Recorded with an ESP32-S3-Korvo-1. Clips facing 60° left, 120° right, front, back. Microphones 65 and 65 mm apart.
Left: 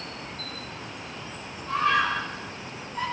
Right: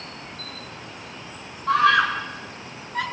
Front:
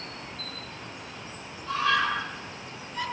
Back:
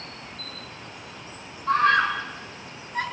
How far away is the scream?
About 5 m.